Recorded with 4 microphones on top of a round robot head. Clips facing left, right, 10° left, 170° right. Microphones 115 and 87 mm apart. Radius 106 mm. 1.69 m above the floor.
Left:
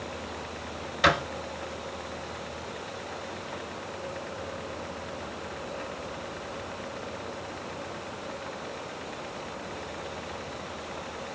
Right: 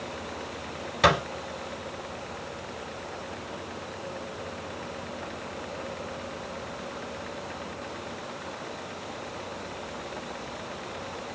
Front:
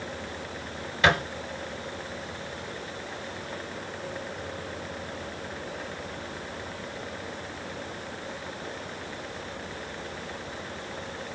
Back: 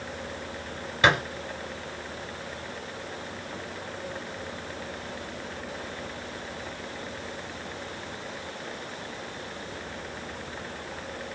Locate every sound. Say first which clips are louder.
1.0 s a thud: right 2 dB, back 1 dB; 105° right, 2 m